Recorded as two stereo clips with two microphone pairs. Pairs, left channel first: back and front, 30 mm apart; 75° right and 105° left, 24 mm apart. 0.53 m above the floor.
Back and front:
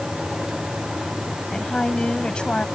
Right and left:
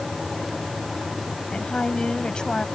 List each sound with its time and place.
1.5 s a woman speaking: 120° right; by 2.6 s 130° right